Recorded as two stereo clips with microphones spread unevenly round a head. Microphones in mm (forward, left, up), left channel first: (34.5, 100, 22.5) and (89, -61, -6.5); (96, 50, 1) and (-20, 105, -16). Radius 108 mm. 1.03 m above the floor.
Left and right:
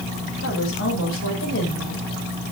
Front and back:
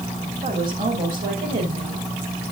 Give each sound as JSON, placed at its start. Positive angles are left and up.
{"t": 0.4, "sound": "a woman speaking", "azimuth_deg": 140, "distance_m": 5.5}